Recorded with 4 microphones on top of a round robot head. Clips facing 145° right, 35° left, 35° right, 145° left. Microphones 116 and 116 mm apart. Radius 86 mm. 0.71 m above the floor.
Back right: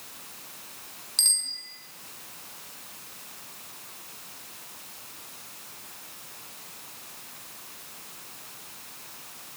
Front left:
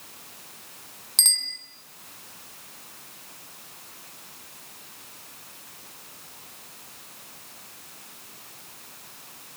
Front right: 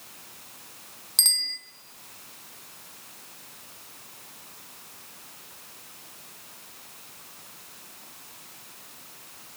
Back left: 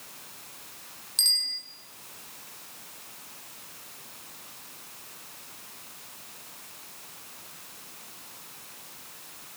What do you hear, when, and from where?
1.2 s a bicycle bell: 5° right, 5 m